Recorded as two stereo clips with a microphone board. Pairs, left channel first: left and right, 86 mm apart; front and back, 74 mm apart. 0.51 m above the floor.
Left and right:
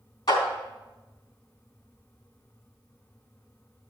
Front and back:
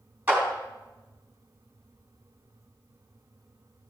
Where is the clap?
115° left, 3.5 m.